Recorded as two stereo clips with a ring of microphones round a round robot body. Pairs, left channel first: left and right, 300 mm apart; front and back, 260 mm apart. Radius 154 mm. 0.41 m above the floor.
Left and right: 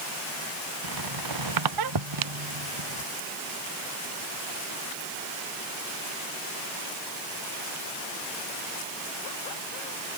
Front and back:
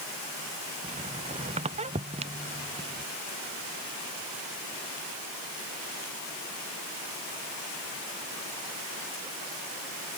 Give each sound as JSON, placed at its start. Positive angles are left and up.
{"t": 0.8, "sound": "a squeak", "azimuth_deg": -110}